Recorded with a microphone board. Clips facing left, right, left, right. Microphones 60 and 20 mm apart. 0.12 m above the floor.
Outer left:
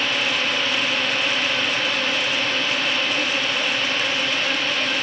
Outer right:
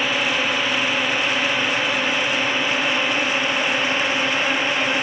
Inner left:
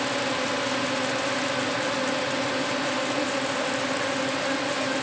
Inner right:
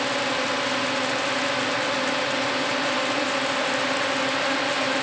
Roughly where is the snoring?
No snoring in this recording.